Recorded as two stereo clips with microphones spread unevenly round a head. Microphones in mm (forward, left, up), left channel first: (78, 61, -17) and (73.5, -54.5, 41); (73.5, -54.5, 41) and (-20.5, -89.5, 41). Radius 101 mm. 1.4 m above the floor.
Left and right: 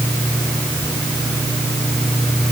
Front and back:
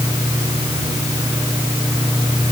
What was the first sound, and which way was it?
Only background noise.